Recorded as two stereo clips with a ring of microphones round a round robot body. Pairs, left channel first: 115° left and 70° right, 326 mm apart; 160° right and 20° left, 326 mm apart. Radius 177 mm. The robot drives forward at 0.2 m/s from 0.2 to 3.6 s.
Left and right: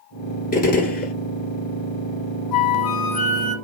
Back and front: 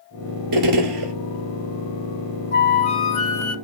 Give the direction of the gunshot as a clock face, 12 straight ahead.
10 o'clock.